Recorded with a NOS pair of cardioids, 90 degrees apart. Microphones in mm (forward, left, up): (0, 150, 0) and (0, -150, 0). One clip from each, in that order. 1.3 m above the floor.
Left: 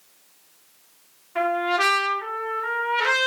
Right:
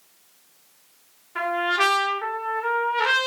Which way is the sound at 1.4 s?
5° right.